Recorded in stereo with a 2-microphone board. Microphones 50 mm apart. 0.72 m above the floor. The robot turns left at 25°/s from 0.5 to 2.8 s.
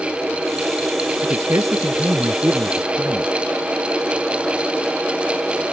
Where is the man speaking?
90° right; by 3.3 s 125° right.